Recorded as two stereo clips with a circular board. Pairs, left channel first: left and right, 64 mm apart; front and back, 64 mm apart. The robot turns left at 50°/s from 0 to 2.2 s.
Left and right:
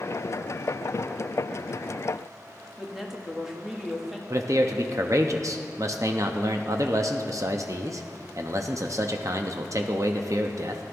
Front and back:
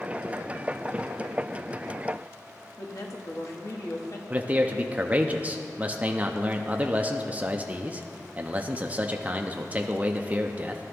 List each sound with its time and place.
2.8 s a woman speaking: 5° right, 1.5 m
4.3 s a man speaking: 115° right, 0.7 m